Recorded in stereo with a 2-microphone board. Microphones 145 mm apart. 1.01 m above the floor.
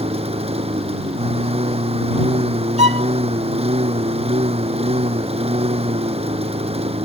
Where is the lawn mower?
45° right (ahead or behind).